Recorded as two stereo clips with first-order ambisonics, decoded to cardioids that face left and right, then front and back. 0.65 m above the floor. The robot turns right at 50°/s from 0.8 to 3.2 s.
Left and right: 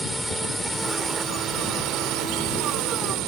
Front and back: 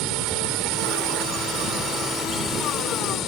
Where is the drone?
175° right; by 3.3 s 55° right.